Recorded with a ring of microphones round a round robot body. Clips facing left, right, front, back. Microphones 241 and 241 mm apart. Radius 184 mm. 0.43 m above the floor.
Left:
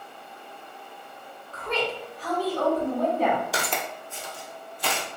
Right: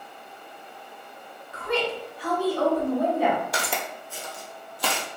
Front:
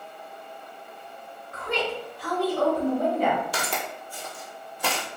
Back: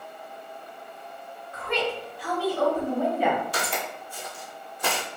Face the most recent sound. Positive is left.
turn(degrees=-95)